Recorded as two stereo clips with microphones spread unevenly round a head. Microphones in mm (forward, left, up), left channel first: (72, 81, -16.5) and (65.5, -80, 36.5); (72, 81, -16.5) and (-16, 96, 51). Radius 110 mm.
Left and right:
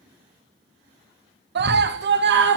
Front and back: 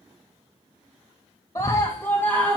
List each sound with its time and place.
1.6 s a scream: 85° right, 1.9 m; by 2.6 s 95° right, 2.5 m